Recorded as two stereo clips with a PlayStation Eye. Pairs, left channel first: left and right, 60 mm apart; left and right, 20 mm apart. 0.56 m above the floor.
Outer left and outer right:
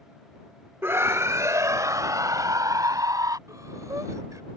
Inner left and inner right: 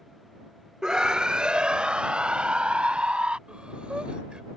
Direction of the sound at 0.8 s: 40° right (ahead or behind).